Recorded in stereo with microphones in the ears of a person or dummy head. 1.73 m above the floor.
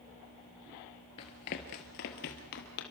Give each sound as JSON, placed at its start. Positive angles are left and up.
{"t": 1.2, "sound": "running footsteps", "side_deg": 25, "distance_m": 1.8}